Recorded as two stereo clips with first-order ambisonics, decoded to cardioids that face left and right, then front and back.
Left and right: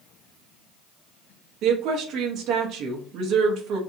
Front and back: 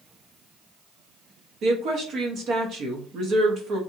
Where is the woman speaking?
130° right, 0.6 m.